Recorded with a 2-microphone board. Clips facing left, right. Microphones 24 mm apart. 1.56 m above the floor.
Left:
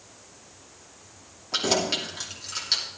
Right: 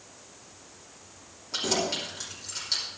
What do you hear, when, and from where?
1.5 s keys jangling: 30° left (ahead or behind), 2.5 m